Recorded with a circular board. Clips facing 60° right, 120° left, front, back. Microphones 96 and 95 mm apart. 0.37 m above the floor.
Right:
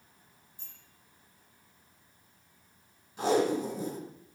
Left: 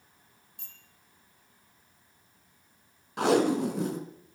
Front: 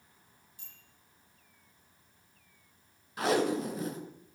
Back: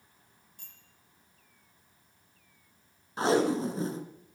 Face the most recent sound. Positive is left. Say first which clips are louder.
# left 3 dB, back 3 dB
turn(degrees=120)